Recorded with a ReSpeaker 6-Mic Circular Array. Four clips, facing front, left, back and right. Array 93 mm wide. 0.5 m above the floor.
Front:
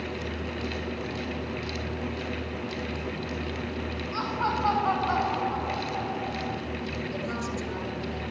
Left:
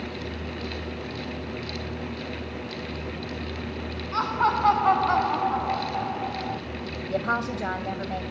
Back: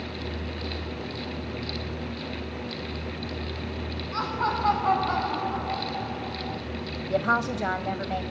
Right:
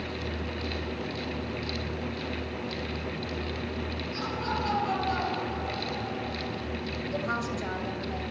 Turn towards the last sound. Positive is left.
turn(degrees=150)